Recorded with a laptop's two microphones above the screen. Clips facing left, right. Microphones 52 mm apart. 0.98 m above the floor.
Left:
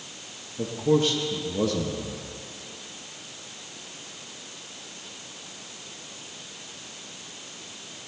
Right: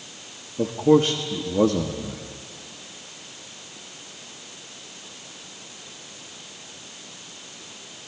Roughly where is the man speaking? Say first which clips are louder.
Right 5 dB; right.